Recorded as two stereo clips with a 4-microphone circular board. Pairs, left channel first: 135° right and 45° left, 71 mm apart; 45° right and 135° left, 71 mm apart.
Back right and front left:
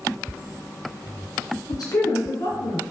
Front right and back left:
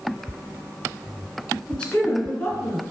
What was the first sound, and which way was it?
A man speaking, 120° right.